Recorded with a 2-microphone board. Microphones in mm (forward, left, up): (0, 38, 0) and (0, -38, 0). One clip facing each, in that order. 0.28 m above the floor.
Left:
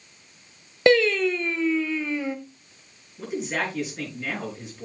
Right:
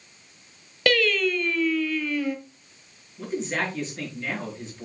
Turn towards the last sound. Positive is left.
turn(degrees=5)  # may be behind; listen again after turning